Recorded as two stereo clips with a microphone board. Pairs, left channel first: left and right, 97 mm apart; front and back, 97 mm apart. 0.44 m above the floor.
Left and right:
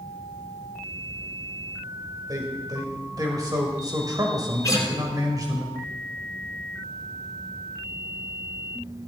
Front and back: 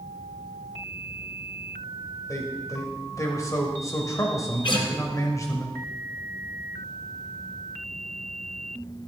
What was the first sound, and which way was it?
A man speaking, 50° right.